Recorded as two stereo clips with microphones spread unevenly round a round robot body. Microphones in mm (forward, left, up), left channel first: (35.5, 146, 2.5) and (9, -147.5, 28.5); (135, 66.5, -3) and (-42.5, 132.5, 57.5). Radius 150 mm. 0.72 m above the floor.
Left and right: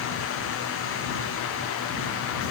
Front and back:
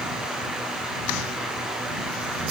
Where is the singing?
No singing in this recording.